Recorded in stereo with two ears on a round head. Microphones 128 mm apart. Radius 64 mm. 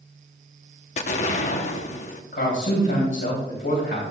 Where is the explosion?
55° left (ahead or behind), 0.8 m.